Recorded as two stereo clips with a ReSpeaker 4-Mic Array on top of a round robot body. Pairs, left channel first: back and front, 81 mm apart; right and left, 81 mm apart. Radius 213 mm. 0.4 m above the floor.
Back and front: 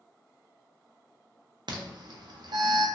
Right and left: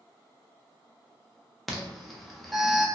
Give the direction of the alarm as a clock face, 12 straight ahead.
12 o'clock.